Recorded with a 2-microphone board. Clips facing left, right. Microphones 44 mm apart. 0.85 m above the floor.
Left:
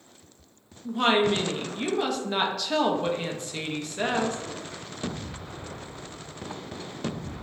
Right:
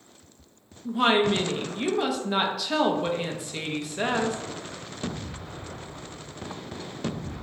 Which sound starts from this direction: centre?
A woman speaking, at 0.8 s.